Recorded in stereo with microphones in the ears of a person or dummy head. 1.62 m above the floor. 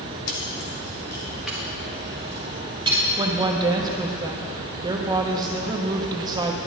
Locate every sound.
0.3 s keys jangling: 45° left (ahead or behind), 0.9 m; by 3.0 s 25° right (ahead or behind), 1.9 m
3.2 s a woman speaking: 25° right (ahead or behind), 1.1 m